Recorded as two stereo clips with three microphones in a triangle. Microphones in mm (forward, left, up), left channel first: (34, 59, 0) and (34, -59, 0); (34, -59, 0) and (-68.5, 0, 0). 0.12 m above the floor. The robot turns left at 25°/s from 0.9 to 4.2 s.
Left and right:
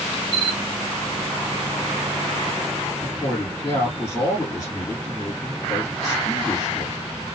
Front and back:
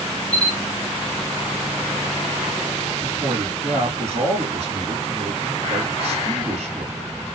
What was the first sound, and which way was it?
A camera shutter, 115° right.